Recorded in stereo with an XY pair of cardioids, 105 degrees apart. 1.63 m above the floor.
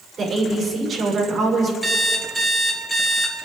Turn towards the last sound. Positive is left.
turn(degrees=-5)